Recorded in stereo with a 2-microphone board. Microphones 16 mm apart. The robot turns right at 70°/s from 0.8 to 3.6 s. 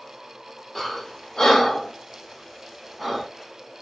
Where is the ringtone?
No ringtone in this recording.